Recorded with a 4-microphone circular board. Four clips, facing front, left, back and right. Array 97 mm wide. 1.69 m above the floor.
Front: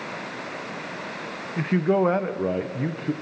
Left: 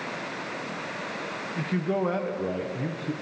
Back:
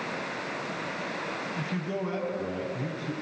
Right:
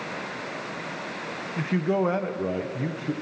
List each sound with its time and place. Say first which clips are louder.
1.6 s a man speaking: right 3 dB, front 15 dB; 10° right, 1.1 m